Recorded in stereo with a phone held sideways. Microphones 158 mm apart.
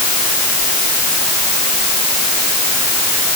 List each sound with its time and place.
Only background noise.